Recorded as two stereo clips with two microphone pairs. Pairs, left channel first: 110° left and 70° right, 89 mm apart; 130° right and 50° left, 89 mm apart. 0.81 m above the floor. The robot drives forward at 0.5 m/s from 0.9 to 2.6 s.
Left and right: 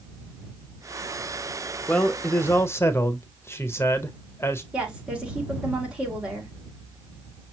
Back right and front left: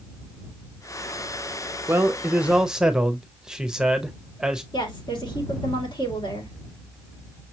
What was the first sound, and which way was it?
A man speaking, 55° left.